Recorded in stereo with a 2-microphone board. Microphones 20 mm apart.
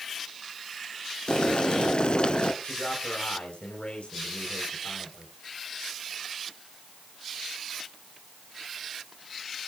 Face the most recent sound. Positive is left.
turn(degrees=85)